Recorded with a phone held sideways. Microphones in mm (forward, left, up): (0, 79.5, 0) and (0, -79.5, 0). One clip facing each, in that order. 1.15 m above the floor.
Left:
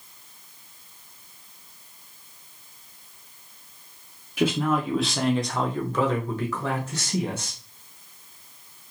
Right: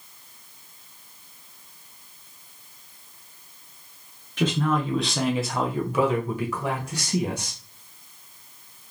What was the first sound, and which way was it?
A man speaking, 10° left (ahead or behind).